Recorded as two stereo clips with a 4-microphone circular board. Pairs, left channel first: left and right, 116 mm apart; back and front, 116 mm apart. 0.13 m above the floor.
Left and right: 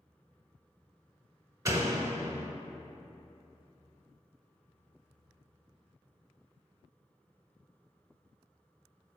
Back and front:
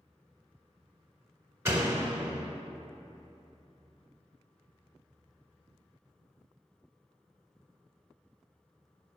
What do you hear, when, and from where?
1.6 s a door slam: 55° right, 1.1 m